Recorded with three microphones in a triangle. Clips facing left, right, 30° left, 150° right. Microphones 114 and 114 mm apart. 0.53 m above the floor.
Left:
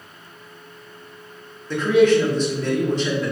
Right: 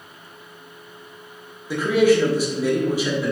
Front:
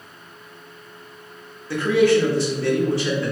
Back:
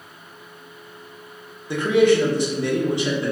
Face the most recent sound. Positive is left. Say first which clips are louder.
# left 1 dB, even
turn(degrees=-150)